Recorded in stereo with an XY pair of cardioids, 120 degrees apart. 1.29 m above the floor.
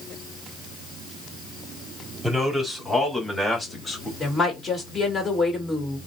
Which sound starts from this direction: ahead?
A man speaking, at 2.2 s.